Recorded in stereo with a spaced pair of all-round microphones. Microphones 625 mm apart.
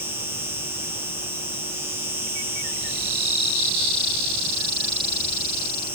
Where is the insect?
70° right (ahead or behind).